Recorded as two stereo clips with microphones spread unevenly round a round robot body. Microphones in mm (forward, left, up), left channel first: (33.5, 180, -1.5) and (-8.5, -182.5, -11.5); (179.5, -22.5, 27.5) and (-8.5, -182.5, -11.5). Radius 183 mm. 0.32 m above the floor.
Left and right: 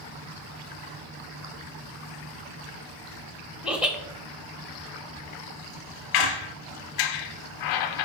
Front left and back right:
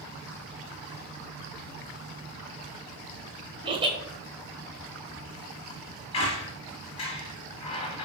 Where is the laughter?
Straight behind, 1.1 m.